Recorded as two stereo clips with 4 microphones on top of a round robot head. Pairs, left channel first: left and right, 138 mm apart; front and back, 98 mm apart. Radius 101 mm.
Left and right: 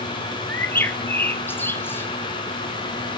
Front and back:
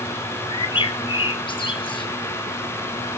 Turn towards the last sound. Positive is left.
turn(degrees=15)